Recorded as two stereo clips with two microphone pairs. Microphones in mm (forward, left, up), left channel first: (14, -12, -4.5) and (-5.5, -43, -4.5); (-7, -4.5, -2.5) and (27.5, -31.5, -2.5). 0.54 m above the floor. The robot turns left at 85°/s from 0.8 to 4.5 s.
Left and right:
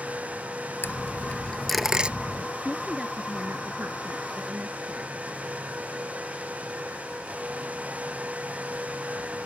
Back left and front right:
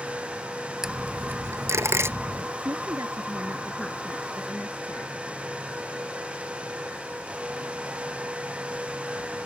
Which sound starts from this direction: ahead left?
A dropped coin, at 0.8 s.